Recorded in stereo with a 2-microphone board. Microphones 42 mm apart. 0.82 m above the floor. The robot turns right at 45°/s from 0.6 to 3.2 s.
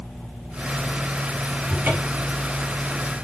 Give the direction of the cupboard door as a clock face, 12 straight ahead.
4 o'clock.